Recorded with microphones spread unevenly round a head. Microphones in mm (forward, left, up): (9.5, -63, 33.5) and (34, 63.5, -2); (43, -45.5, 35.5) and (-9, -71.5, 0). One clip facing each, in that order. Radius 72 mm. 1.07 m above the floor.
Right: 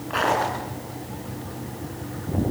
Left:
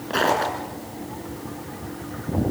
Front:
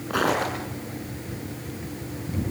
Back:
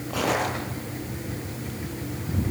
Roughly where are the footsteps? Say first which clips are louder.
Left 1 dB, front 2 dB; ahead left.